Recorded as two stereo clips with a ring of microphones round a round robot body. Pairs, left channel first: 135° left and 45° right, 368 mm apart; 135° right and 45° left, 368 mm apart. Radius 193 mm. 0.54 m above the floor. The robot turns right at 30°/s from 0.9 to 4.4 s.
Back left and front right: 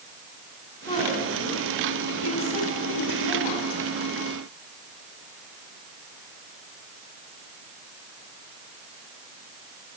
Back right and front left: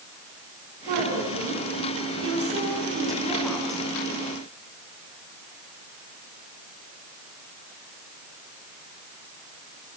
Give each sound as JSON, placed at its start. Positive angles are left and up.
{"t": 0.9, "sound": "a woman speaking", "azimuth_deg": 60, "distance_m": 7.0}